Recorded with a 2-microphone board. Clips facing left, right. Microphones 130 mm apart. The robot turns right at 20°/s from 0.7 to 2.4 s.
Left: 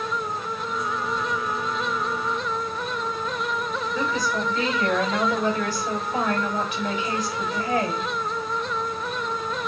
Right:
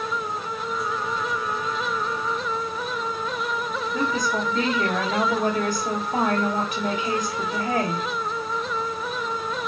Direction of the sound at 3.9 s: 40° right (ahead or behind).